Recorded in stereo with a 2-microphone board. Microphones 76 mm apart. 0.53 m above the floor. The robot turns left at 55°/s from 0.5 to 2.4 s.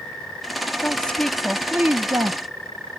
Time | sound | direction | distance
0.8 | a woman speaking | 30° left | ?